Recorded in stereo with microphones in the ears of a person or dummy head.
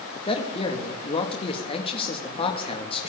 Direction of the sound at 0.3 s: 30° left (ahead or behind).